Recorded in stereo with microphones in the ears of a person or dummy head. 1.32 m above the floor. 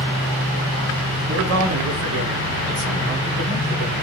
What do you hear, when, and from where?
1.3 s a man speaking: 90° right, 2.5 m; by 3.9 s 80° right, 6.5 m